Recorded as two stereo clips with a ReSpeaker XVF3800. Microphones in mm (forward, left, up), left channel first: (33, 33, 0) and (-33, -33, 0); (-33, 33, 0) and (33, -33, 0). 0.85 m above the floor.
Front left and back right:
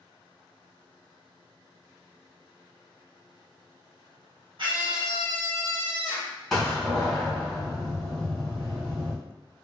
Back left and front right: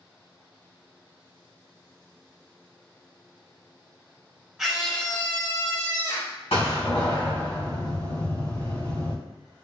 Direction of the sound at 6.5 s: 130° left.